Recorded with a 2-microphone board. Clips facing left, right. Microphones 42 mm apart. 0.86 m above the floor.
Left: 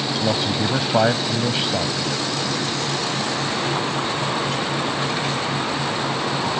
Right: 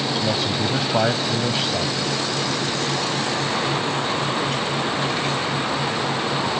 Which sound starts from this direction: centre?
A man speaking, at 0.2 s.